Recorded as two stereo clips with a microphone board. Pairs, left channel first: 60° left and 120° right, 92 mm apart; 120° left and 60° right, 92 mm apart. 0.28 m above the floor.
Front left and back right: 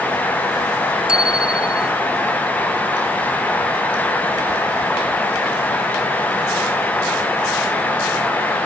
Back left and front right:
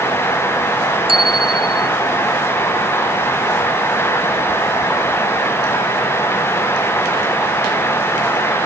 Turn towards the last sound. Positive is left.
turn(degrees=-40)